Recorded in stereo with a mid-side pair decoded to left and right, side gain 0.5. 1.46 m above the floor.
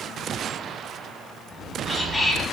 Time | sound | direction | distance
1.5 | whispering | 20° left | 5 m